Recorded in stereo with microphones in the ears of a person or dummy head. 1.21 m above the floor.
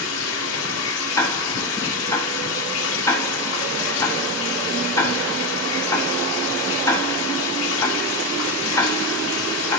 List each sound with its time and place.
0.0 s running water: 70° left (ahead or behind), 2.5 m
1.2 s ticking: 15° left (ahead or behind), 3.5 m